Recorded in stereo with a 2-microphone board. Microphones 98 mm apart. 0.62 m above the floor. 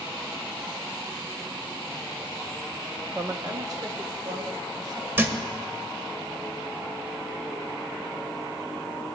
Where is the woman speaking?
15° right (ahead or behind), 0.5 m; by 5.1 s 45° right (ahead or behind), 3 m.